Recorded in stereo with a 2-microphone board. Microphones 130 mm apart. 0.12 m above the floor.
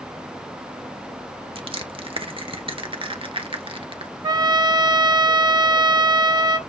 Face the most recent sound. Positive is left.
turn(degrees=-35)  # may be behind; listen again after turning